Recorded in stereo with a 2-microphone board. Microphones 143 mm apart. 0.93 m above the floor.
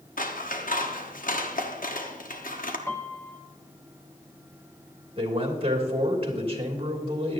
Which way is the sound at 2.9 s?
20° left (ahead or behind).